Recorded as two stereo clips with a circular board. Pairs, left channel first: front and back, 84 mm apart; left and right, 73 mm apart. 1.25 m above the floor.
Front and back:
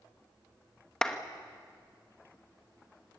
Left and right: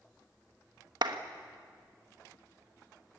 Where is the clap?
80° right, 1.5 m.